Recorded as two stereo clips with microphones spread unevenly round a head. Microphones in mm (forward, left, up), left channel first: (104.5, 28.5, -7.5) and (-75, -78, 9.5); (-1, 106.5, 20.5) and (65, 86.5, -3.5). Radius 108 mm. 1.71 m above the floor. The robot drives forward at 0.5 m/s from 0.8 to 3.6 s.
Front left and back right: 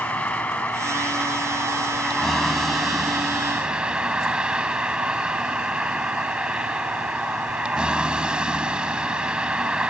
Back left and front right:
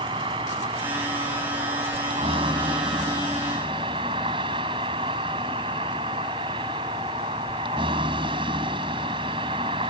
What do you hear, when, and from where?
0.0 s a vehicle: 55° right; by 9.9 s 65° right